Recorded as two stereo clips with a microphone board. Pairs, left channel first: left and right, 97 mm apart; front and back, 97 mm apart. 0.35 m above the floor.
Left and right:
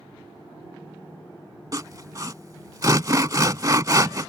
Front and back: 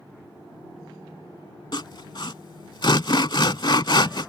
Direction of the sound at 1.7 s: 35° right.